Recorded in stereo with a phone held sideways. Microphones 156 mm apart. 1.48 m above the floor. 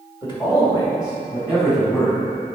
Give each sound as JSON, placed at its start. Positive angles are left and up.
{"t": 0.2, "sound": "a man speaking", "side_deg": 30, "distance_m": 2.5}